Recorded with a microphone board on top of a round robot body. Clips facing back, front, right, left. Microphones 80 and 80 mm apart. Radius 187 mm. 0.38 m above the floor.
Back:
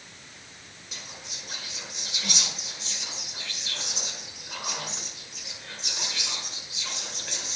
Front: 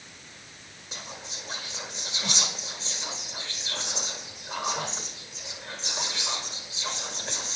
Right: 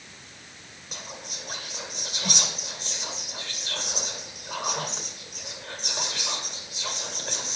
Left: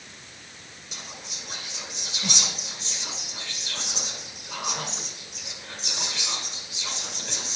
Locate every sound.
0.9 s whispering: 60° right, 2.0 m